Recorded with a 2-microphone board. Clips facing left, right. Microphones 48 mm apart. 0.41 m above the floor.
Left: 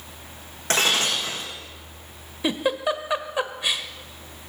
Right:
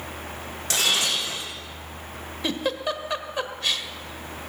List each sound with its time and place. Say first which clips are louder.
0.7 s breaking glass: left 2 dB; 35° left (ahead or behind), 5 m
2.4 s a giggle: left 3 dB; 15° left (ahead or behind), 1.0 m